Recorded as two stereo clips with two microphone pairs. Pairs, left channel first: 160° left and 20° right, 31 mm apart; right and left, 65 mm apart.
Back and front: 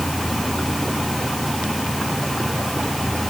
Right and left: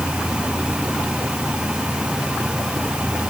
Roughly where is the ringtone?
No ringtone in this recording.